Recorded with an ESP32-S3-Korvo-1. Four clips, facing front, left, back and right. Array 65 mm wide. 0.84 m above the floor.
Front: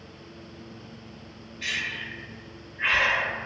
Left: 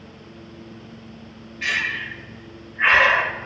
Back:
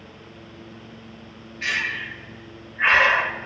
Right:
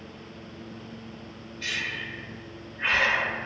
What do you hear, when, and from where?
1.6 s breathing: 130° left, 1.6 m